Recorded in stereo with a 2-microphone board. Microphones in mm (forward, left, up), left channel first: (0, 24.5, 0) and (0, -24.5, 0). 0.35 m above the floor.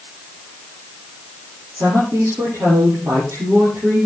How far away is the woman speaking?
About 10 m.